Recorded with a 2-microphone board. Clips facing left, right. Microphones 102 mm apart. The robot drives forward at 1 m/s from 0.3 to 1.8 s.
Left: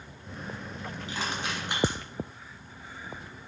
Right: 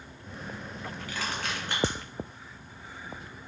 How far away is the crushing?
About 1.8 m.